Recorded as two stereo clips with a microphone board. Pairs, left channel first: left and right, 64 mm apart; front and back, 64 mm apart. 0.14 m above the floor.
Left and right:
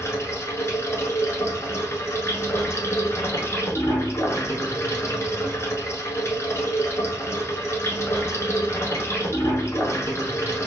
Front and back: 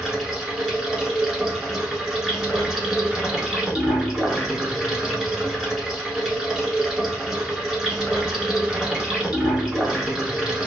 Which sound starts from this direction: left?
Running water, at 0.0 s.